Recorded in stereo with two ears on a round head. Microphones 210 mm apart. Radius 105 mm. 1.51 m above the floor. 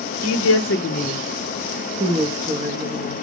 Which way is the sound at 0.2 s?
65° left (ahead or behind).